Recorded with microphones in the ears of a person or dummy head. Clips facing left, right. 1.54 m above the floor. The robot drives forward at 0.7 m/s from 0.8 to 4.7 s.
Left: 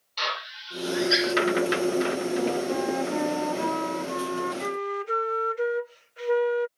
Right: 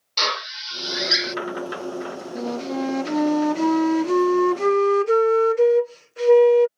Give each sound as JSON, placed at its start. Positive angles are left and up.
{"t": 0.2, "sound": "a drill", "side_deg": -55}
{"t": 2.4, "sound": "a flute", "side_deg": -40}